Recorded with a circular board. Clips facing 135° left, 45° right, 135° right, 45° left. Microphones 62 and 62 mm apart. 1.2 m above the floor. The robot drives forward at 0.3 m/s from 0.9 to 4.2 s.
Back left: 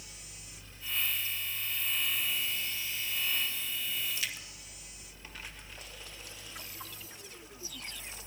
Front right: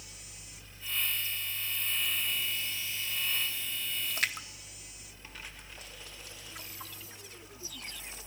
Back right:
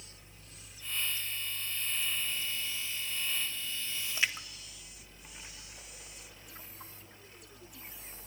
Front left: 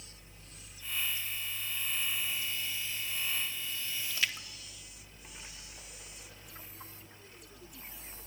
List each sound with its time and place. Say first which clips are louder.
4.1 s a splash: front right 5 dB, back right 2 dB; 70° right, 0.8 m